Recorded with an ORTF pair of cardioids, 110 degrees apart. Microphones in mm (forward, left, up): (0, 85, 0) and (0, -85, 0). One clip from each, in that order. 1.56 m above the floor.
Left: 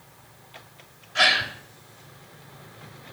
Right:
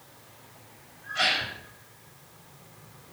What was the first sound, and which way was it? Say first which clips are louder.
A gasp: left 6 dB; 55° left.